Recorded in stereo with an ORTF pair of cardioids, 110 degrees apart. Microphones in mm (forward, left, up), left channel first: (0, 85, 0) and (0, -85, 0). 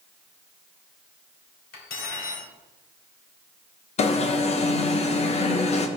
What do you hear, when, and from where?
1.7 s cutlery clinking: 65° left, 3 m
4.0 s an alarm: 40° left, 1.1 m